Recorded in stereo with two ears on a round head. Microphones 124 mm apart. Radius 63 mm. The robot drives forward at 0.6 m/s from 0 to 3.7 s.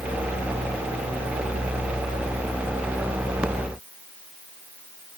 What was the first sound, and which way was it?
Only background noise.